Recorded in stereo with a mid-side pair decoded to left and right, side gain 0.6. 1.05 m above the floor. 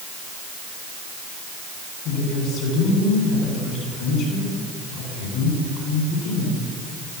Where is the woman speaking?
65° left, 10 m.